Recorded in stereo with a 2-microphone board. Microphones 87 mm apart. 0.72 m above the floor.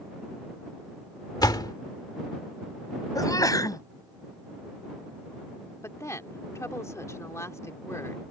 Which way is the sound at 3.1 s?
45° left (ahead or behind).